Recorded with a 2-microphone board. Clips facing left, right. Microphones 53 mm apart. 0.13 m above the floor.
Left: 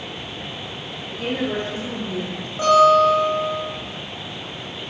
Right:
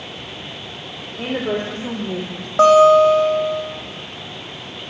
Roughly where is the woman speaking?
Right.